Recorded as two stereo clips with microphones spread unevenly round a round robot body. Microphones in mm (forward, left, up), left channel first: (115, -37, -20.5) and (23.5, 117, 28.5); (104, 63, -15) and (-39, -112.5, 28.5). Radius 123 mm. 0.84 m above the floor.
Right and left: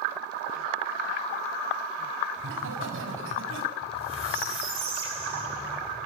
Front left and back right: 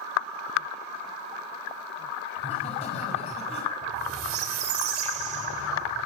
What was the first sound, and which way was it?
Laughter, 115° left.